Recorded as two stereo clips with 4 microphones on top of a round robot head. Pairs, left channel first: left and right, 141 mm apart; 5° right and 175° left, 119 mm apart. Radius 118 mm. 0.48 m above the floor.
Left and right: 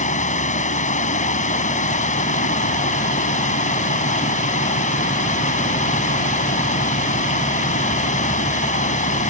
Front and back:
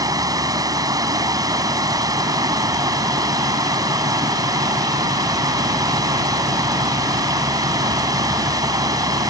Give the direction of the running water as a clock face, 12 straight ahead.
8 o'clock.